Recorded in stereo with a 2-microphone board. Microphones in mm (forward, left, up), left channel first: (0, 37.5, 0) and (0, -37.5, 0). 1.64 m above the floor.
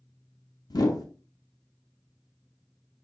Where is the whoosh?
60° left (ahead or behind), 0.6 m.